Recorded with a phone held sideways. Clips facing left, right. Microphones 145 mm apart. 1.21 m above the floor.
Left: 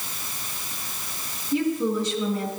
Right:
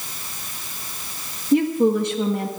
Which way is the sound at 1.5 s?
65° right (ahead or behind).